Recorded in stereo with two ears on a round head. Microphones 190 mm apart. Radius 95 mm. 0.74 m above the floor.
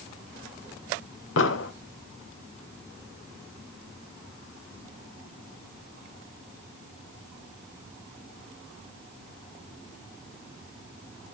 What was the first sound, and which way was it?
An explosion, 65° left (ahead or behind).